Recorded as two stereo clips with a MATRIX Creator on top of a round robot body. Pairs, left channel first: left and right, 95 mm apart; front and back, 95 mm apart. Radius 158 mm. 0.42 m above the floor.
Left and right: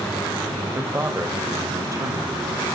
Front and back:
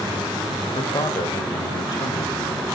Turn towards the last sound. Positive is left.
turn(degrees=-40)